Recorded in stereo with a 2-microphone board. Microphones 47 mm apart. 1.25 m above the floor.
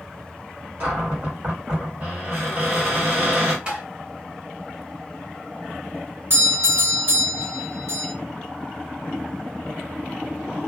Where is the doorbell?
65° right (ahead or behind), 1.8 m.